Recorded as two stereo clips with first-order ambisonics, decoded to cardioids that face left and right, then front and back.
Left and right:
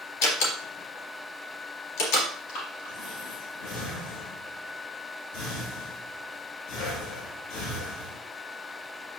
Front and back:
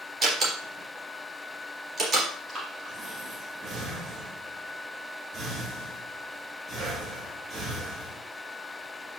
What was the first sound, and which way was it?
A door slam, 115° left.